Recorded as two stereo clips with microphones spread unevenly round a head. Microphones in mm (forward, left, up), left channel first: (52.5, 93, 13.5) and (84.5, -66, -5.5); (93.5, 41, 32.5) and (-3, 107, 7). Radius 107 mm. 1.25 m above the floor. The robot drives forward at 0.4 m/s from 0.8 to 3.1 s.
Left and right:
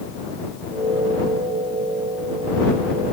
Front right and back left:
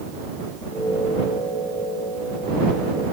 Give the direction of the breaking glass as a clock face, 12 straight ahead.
I don't hear breaking glass.